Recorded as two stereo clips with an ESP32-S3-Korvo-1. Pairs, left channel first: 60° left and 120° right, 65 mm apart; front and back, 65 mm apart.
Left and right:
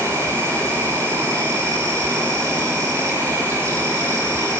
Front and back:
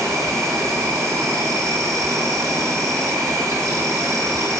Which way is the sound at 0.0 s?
155° right.